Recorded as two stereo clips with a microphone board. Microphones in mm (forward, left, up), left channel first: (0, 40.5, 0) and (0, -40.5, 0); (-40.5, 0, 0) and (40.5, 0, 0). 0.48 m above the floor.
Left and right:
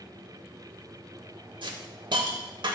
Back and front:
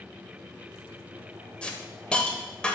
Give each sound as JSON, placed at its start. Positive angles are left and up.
{"t": 1.6, "sound": "a hiss", "azimuth_deg": -105, "distance_m": 0.9}